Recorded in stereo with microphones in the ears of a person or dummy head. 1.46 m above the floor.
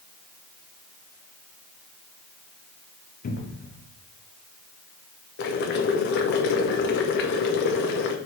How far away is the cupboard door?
About 0.6 m.